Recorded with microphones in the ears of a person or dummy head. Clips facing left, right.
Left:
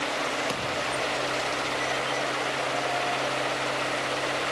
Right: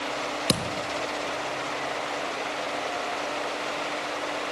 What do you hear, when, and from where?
0.5 s a thud: 55° right (ahead or behind), 1.2 m